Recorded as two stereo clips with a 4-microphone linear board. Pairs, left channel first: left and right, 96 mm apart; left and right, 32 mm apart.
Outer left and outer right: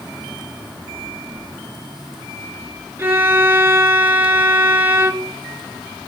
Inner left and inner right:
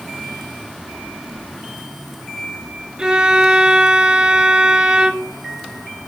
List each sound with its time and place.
3.0 s a violin: 25° right (ahead or behind), 0.7 m